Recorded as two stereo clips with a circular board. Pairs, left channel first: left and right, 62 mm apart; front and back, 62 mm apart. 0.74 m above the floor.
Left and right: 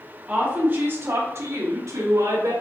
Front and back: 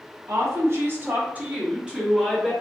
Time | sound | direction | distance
0.3 | a woman speaking | 155° right | 1.4 m